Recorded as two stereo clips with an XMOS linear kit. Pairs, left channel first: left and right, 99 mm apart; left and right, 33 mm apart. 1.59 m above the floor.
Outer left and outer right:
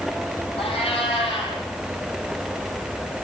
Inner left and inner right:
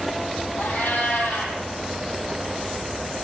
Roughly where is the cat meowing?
Left.